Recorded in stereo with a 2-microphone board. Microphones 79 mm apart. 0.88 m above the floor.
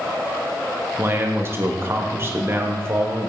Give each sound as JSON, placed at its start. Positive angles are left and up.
{"t": 1.0, "sound": "a man speaking", "side_deg": -30, "distance_m": 0.9}